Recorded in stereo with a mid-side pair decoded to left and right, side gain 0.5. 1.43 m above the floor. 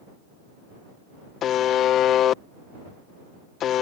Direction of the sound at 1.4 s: 60° left.